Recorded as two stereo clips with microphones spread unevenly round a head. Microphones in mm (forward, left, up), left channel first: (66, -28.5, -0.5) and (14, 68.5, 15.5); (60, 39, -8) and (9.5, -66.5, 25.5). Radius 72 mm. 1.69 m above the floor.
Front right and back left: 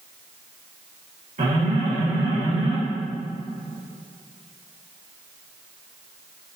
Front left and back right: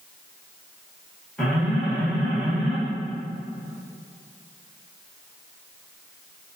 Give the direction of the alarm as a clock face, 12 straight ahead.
7 o'clock.